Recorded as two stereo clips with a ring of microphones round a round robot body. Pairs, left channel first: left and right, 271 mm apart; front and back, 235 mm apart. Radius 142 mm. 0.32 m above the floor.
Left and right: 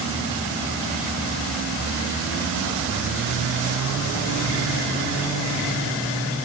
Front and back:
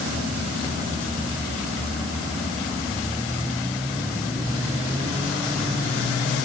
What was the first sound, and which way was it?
Only background noise.